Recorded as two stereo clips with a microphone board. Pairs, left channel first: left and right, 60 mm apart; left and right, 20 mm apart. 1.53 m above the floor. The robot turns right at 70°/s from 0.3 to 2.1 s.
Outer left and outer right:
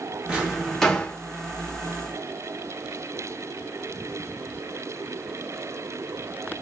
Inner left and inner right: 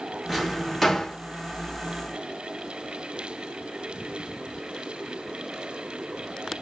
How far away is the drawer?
About 1.1 m.